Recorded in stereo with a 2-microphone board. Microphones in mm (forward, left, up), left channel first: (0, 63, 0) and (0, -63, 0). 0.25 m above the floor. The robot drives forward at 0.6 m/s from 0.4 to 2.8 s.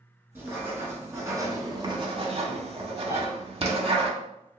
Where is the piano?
30° left (ahead or behind), 2.0 m.